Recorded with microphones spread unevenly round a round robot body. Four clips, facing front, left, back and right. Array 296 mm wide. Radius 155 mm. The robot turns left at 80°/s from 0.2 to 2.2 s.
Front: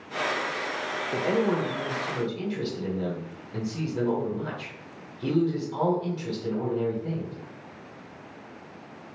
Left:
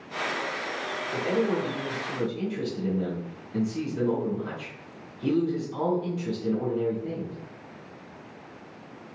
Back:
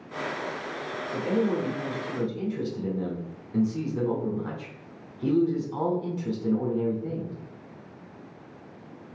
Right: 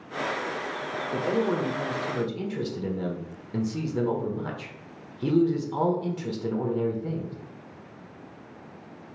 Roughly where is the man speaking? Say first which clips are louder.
Even, front 1 dB; ahead.